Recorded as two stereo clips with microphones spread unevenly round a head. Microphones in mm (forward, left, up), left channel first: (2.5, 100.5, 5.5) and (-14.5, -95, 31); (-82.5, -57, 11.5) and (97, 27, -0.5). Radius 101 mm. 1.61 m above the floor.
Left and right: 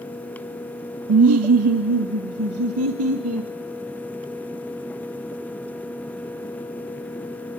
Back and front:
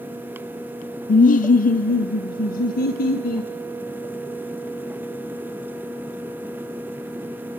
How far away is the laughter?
About 0.8 m.